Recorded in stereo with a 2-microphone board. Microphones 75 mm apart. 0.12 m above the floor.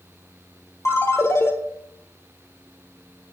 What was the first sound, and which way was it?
A ringtone, 35° left (ahead or behind).